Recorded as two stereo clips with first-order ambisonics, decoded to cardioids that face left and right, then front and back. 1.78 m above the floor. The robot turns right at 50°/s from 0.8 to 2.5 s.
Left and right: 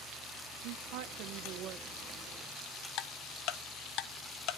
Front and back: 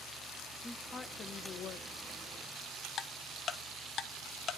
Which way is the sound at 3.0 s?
60° left.